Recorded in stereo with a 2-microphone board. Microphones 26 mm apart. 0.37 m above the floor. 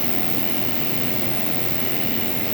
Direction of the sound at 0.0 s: 60° right (ahead or behind).